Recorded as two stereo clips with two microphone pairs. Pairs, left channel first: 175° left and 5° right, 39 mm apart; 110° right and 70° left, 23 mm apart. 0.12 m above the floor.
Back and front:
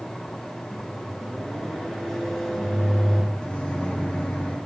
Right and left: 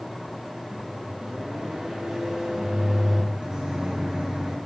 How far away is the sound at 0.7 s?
About 1.4 m.